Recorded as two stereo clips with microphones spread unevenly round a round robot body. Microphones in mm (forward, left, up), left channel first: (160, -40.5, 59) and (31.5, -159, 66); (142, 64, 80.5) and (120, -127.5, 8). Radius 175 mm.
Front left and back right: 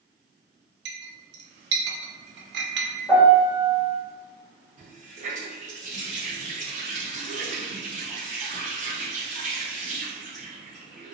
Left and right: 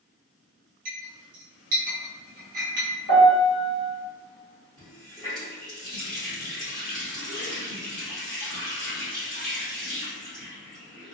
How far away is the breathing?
No breathing in this recording.